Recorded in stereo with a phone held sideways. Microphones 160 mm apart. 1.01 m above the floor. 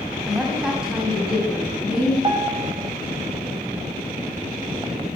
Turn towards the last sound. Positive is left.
turn(degrees=-30)  # may be behind; listen again after turning